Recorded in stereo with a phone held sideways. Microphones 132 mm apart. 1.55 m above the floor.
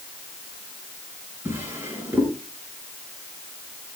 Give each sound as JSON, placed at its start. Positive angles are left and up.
{"t": 1.4, "sound": "a drawer", "side_deg": -20, "distance_m": 5.0}